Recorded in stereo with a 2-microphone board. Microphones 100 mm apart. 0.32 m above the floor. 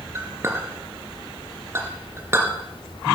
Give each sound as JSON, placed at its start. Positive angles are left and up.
{"t": 0.1, "sound": "a clink", "side_deg": -25, "distance_m": 2.5}